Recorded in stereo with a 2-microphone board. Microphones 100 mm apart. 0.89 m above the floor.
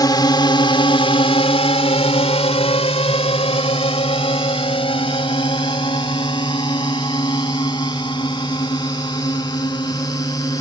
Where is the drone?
40° left (ahead or behind); by 10.6 s 45° left (ahead or behind).